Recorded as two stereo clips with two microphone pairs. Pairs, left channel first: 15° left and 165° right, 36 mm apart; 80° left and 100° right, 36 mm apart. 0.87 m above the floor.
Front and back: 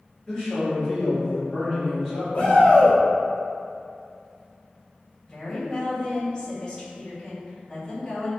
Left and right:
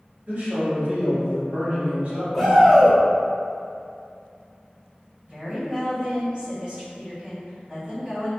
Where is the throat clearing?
I don't hear throat clearing.